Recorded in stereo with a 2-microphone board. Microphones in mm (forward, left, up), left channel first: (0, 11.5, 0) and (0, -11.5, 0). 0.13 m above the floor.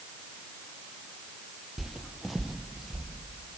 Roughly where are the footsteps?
Centre.